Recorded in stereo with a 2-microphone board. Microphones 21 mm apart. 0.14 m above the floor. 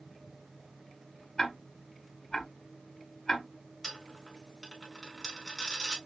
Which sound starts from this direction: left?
Ticking, at 1.4 s.